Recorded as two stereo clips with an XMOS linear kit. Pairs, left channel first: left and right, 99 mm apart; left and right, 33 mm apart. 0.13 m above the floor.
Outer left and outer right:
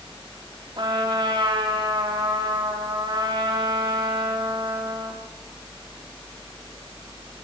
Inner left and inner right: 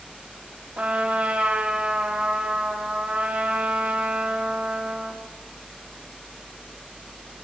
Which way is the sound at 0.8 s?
50° right (ahead or behind).